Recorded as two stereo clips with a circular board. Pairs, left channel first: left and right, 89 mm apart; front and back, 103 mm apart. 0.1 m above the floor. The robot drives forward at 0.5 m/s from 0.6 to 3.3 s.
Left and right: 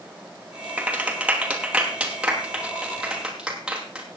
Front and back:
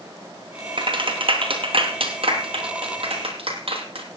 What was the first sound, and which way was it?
A clap, 165° right.